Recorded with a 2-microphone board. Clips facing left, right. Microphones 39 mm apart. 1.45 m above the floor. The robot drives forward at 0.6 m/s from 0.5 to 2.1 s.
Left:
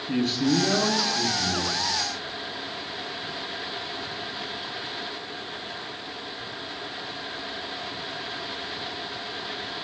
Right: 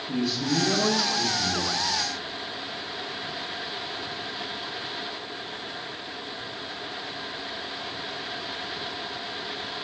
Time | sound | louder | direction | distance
0.1 | a man speaking | left 3 dB | 50° left (ahead or behind) | 0.9 m